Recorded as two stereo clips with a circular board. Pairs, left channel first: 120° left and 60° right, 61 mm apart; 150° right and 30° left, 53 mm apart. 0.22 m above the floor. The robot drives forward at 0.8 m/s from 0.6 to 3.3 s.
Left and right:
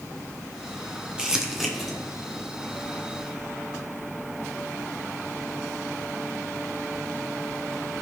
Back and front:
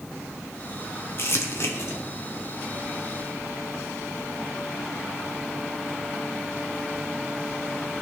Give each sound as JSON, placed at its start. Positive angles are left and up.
{"t": 1.2, "sound": "crumpling", "azimuth_deg": -130, "distance_m": 1.0}